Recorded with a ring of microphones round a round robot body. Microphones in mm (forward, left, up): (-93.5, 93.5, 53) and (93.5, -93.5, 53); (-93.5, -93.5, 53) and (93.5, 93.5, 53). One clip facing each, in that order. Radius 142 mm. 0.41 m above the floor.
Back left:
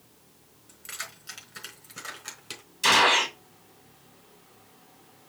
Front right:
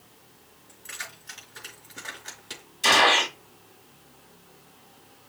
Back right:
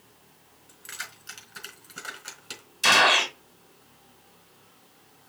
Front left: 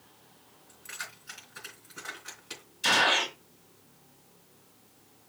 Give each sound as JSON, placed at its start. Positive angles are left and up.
{"t": 0.7, "sound": "keys jangling", "azimuth_deg": -175, "distance_m": 4.5}
{"t": 2.8, "sound": "a gunshot", "azimuth_deg": -155, "distance_m": 1.6}